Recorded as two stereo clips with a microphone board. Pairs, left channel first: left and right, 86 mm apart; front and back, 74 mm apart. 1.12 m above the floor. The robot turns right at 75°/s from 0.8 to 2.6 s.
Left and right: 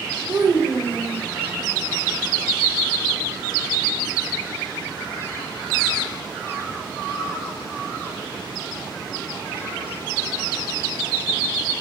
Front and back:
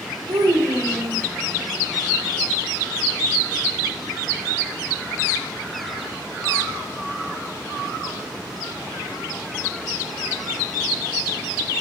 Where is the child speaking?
150° right, 2.5 m; by 1.3 s 115° right, 2.5 m.